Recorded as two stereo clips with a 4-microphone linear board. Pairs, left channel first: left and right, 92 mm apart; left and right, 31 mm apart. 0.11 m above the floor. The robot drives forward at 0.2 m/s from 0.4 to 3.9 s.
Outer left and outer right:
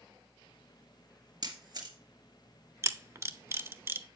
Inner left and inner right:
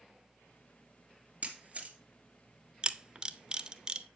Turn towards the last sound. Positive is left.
turn(degrees=-25)  # may be behind; listen again after turning